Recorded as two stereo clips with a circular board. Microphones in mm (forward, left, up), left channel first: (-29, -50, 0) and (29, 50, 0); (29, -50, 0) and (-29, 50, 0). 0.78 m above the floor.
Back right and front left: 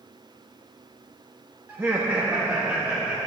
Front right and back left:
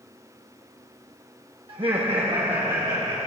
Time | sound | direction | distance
1.7 | laughter | 125° left | 0.8 m